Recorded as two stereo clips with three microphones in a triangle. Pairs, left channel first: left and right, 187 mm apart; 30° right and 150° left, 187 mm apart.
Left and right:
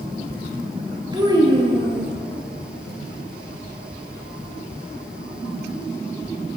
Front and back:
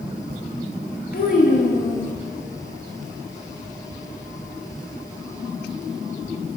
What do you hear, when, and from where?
1.1 s a child speaking: 30° right, 1.4 m